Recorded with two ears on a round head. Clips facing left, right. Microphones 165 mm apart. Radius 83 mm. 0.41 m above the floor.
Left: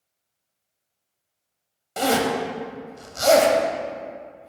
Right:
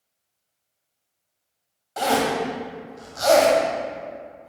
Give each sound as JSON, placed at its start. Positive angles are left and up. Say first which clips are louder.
{"t": 2.0, "sound": "a zipper", "louder": "even", "side_deg": 35, "distance_m": 0.9}